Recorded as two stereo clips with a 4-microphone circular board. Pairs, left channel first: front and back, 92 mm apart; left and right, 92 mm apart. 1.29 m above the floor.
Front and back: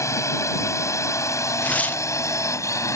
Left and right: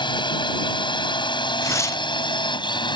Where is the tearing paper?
65° left.